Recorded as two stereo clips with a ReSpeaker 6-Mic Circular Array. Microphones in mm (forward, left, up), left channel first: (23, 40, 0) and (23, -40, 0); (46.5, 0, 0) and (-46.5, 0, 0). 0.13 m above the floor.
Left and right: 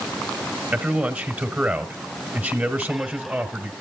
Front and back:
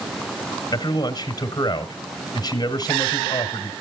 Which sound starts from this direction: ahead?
A man speaking, at 0.7 s.